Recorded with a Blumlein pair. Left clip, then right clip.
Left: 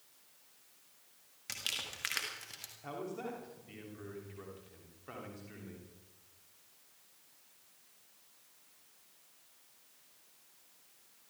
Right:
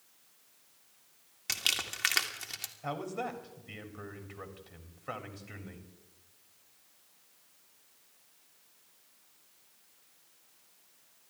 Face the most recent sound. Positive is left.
turn(degrees=-70)